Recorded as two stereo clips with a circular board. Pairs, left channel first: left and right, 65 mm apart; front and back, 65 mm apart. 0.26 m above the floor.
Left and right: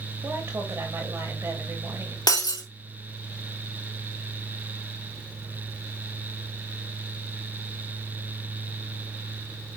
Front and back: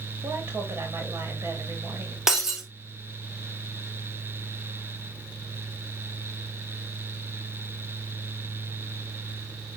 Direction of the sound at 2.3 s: 95° left.